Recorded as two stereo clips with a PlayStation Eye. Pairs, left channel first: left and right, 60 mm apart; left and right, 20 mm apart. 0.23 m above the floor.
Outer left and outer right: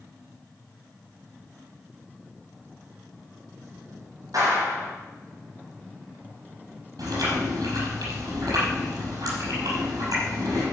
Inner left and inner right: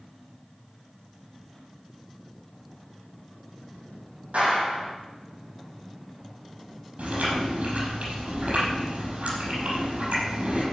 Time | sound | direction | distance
4.3 | a clap | 70° right (ahead or behind) | 6.5 m
7.0 | chewing | 80° right | 5.5 m